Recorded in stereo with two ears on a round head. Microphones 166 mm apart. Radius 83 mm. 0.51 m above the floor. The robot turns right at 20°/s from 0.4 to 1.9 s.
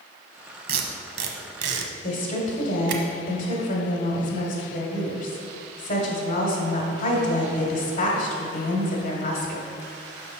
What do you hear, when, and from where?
0.7 s tape being pulled: 50° right (ahead or behind), 0.9 m; by 3.0 s 75° right (ahead or behind), 0.9 m
2.0 s a woman speaking: 45° left (ahead or behind), 1.4 m